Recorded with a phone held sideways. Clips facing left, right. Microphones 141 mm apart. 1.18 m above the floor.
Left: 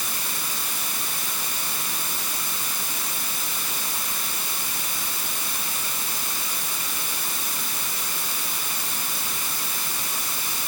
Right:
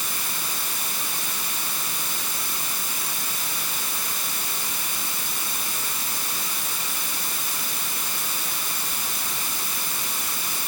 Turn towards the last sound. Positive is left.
No sound to turn to.